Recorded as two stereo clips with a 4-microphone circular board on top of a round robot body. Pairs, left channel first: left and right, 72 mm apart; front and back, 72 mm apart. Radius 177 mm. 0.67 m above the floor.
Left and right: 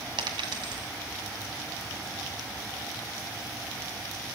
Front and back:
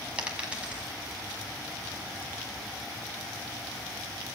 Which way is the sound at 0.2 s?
105° right.